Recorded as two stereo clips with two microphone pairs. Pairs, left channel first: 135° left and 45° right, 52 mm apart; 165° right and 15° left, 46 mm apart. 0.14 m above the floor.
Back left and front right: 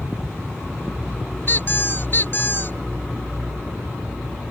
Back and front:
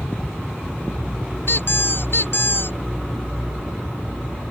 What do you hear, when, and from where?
1.5 s a squeak: 170° left